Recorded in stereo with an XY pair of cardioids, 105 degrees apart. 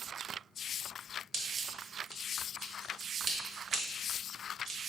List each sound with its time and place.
1.3 s scissors: 40° right, 1.0 m